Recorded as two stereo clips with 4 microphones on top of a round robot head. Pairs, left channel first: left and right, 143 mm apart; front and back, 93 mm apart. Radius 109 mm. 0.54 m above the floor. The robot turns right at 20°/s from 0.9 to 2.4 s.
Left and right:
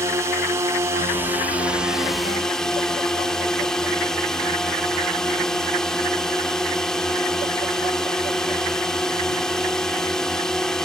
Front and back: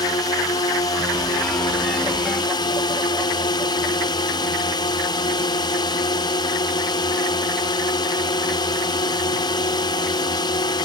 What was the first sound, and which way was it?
A drone, 25° right.